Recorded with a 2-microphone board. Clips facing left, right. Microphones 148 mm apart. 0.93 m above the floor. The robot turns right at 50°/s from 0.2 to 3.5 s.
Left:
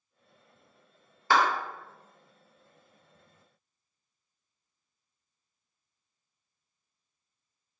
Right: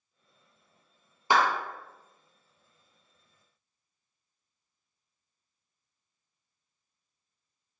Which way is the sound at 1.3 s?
15° right (ahead or behind).